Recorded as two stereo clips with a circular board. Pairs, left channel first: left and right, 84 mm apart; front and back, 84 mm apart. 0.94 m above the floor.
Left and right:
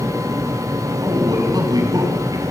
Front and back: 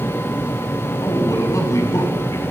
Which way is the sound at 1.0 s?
50° right.